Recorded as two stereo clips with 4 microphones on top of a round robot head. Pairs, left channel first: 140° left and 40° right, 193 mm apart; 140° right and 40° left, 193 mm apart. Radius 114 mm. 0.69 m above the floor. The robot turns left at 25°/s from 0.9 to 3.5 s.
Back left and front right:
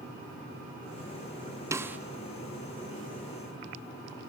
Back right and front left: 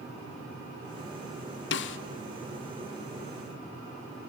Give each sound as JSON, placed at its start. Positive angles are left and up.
{"t": 1.7, "sound": "a snare drum", "azimuth_deg": -115, "distance_m": 0.7}